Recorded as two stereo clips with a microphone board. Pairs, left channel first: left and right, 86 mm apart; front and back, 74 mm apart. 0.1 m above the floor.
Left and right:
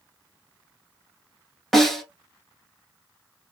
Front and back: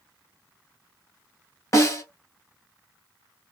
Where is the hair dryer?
I don't hear a hair dryer.